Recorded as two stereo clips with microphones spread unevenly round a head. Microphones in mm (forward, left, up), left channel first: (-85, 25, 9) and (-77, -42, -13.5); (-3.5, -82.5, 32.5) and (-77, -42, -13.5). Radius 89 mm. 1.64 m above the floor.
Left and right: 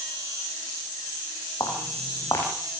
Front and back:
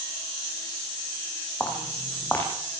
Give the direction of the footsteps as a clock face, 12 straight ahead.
11 o'clock.